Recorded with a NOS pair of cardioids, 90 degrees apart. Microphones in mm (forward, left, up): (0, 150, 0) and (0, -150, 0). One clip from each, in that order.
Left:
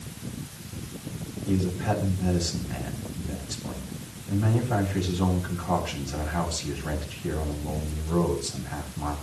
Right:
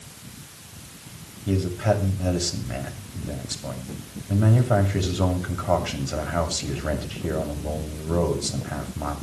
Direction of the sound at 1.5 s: 65° right.